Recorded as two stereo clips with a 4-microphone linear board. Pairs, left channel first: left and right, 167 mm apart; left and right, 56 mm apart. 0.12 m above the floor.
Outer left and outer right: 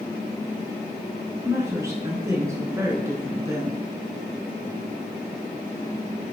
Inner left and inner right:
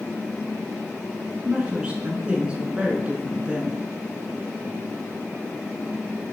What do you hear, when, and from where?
1.4 s a woman speaking: 20° right (ahead or behind), 1.1 m